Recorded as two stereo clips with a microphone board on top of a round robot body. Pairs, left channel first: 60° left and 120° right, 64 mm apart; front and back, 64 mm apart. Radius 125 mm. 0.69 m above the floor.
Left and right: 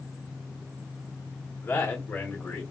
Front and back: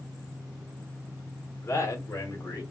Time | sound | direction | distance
1.6 | a man speaking | 30° left | 1.3 m